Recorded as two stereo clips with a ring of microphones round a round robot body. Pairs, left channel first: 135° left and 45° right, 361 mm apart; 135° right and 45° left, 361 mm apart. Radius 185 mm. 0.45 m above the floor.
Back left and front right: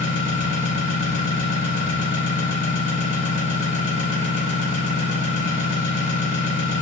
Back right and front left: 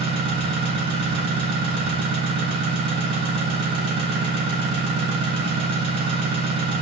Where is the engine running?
105° left, 2.5 m.